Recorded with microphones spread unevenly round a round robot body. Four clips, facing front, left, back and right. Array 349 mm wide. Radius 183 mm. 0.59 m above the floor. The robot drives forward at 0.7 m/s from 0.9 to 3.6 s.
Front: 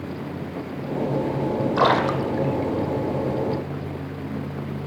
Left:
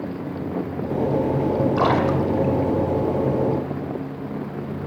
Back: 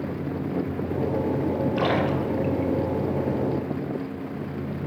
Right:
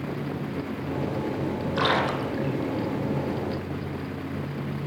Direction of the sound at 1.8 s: 10° left.